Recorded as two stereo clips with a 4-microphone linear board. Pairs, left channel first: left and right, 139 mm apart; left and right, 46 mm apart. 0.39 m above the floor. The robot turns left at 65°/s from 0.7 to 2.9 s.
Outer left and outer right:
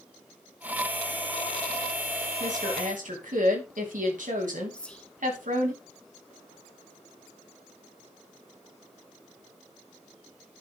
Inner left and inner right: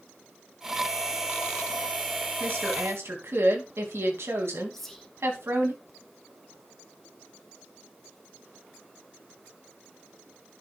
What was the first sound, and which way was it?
A woman speaking, 65° right.